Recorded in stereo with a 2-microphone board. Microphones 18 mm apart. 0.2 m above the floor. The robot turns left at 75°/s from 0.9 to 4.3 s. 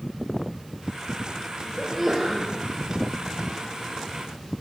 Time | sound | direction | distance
1.8 | a sneeze | straight ahead | 4.5 m